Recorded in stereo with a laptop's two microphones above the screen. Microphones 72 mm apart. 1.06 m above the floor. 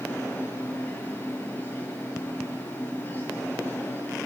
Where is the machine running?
30° left (ahead or behind), 9 m.